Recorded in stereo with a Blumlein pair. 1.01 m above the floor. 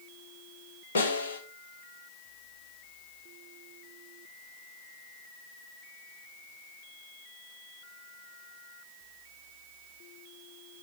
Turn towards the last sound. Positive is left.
turn(degrees=65)